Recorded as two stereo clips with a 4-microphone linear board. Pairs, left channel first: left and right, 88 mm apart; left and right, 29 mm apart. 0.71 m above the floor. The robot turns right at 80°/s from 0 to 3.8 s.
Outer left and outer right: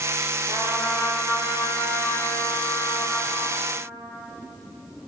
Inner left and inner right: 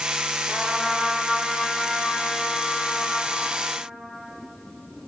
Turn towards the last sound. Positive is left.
turn(degrees=130)